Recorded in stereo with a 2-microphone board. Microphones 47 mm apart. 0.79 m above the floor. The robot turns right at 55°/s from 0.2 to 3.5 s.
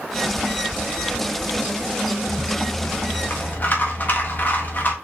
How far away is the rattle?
About 1.1 m.